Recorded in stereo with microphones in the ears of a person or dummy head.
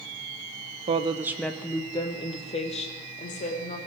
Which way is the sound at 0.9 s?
30° right (ahead or behind).